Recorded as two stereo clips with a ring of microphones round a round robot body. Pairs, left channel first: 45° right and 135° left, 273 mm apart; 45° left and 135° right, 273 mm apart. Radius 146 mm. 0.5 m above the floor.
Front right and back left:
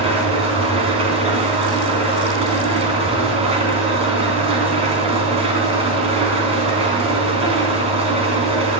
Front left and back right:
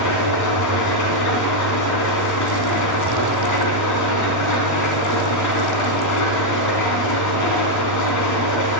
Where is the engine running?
65° left, 3.5 m.